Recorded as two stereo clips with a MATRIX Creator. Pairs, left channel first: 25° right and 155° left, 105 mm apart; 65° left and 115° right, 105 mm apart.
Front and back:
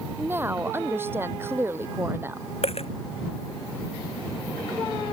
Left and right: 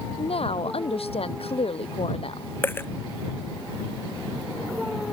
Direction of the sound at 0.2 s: 90° left.